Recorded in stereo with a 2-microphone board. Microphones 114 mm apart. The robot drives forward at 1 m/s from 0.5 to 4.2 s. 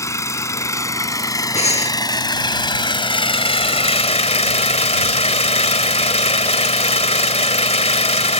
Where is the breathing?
70° left (ahead or behind).